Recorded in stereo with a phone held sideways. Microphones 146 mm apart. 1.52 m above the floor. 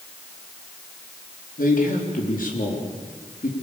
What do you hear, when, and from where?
1.6 s a man speaking: 70° left (ahead or behind), 4 m